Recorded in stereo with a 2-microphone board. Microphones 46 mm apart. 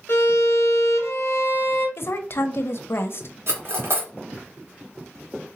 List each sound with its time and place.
0.1 s a violin: 60° left (ahead or behind), 1.3 m
2.0 s a woman speaking: 55° left (ahead or behind), 0.7 m
3.5 s cutlery clinking: 50° right (ahead or behind), 1.4 m